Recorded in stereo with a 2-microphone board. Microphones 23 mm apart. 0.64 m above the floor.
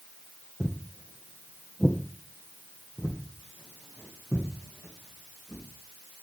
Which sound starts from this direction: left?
Footsteps, at 0.6 s.